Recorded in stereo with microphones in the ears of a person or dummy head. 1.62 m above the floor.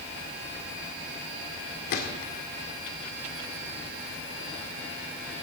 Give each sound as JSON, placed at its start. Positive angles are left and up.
{"t": 1.9, "sound": "a gunshot", "side_deg": 50, "distance_m": 2.0}